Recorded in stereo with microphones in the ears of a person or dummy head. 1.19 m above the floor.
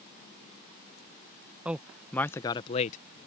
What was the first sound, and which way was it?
A man speaking, 5° right (ahead or behind).